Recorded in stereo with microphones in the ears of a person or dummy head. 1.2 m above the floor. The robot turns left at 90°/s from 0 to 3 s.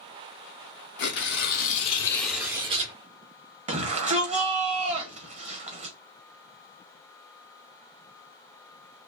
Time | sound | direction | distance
1.0 | tearing paper | 125° left | 1.1 m
3.7 | a shout | 40° right (ahead or behind) | 1.2 m